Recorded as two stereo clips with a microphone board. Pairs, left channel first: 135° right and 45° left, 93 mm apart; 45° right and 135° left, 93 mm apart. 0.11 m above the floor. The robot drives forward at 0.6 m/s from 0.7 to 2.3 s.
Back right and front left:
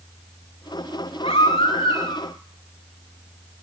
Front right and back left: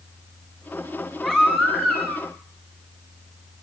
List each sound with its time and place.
1.2 s a baby crying: 125° right, 6 m; by 2.3 s 130° right, 6 m